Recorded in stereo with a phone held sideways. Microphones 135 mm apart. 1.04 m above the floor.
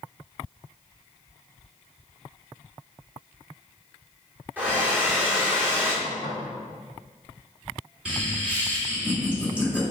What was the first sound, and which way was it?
A hair dryer, 15° right (ahead or behind).